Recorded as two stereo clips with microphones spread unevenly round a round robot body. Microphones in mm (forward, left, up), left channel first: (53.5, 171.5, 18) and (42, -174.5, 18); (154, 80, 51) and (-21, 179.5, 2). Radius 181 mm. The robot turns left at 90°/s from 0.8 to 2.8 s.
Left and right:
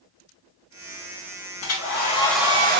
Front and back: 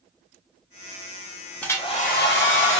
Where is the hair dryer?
65° left, 1.1 m; by 2.8 s 40° right, 1.1 m.